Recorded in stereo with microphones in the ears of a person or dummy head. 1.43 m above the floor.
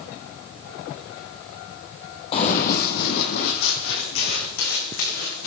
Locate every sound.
2.3 s running footsteps: 35° left (ahead or behind), 2 m; by 5.5 s 70° left (ahead or behind), 6 m